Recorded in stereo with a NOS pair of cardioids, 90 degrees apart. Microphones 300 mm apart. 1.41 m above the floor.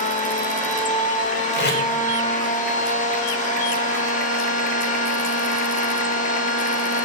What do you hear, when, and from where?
0.0 s a machine running: 25° left, 0.8 m
1.5 s tape being pulled: 35° left, 0.9 m